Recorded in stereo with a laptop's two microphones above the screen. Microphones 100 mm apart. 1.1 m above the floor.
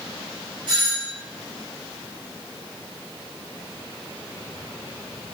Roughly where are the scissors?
No scissors in this recording.